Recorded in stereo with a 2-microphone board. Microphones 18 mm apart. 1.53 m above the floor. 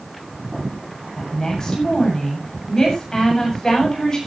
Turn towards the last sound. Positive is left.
turn(degrees=30)  # may be behind; listen again after turning